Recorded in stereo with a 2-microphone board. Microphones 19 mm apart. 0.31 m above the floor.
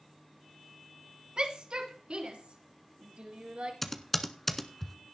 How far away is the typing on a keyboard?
About 1.2 m.